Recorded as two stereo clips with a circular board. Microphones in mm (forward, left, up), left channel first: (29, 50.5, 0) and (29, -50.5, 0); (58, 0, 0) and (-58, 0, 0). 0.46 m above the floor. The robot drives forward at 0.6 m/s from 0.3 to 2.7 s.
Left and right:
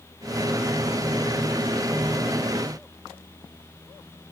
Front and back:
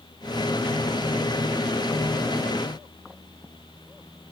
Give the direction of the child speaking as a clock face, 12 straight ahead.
No child speaking in this recording.